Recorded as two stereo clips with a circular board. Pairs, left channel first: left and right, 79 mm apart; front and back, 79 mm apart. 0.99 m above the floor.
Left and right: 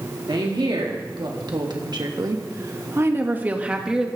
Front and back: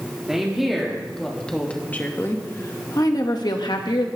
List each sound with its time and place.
0.3 s a woman speaking: 95° right, 2.5 m; by 4.1 s 5° right, 1.8 m